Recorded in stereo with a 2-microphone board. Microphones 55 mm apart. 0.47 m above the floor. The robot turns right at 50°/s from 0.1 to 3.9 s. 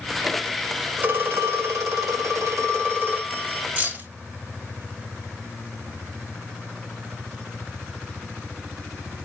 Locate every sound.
1.0 s a phone ringing: 145° right, 1.2 m; by 3.7 s 10° right, 1.2 m
3.8 s keys jangling: 30° right (ahead or behind), 1.5 m; by 4.1 s 35° right (ahead or behind), 1.5 m